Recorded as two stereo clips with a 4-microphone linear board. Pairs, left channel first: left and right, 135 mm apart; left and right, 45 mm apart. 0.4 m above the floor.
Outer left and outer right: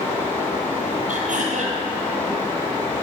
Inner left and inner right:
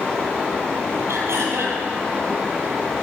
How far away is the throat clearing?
About 1.4 m.